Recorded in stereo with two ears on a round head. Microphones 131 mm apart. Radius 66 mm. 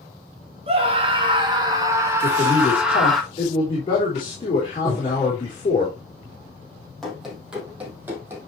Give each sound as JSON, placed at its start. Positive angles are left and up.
{"t": 0.7, "sound": "a scream", "side_deg": -40, "distance_m": 2.0}
{"t": 2.2, "sound": "a man speaking", "side_deg": 35, "distance_m": 4.0}
{"t": 4.8, "sound": "breathing", "side_deg": 10, "distance_m": 4.0}
{"t": 7.0, "sound": "running footsteps", "side_deg": 0, "distance_m": 3.5}